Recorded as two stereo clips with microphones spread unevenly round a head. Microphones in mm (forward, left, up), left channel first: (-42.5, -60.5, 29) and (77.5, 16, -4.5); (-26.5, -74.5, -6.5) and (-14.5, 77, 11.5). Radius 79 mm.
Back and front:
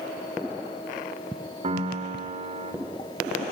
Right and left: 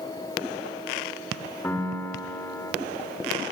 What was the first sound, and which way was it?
A piano, 15° right.